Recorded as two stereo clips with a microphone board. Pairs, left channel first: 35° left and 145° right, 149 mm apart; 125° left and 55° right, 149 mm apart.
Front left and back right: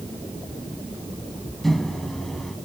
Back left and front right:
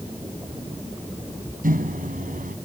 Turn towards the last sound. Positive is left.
turn(degrees=-55)